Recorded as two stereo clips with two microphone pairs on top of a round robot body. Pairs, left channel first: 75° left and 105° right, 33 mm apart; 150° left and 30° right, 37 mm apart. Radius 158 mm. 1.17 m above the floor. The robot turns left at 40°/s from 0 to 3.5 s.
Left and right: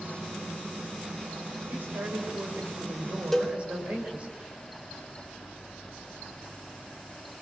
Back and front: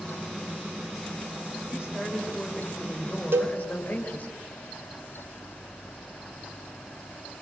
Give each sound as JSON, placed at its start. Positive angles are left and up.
{"t": 1.7, "sound": "a woman speaking", "azimuth_deg": -85, "distance_m": 4.5}
{"t": 3.3, "sound": "a cowbell", "azimuth_deg": -10, "distance_m": 0.6}